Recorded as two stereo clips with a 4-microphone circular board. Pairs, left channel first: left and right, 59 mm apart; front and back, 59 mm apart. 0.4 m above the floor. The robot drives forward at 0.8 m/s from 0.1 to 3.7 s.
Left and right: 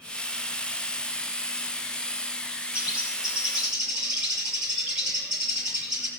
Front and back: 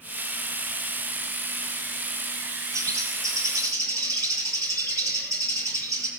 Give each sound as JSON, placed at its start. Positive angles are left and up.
{"t": 2.7, "sound": "a bird", "azimuth_deg": -160, "distance_m": 1.9}